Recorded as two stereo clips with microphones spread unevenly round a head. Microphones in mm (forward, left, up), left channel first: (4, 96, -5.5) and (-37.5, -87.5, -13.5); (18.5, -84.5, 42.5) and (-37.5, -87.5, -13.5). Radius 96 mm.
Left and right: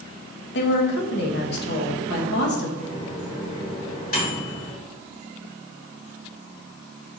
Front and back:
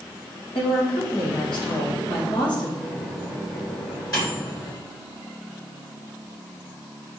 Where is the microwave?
30° left, 2.5 m.